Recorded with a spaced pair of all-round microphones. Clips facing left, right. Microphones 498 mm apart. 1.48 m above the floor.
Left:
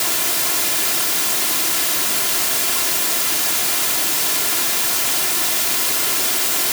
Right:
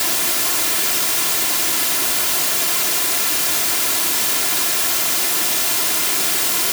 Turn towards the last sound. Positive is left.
No sound to turn to.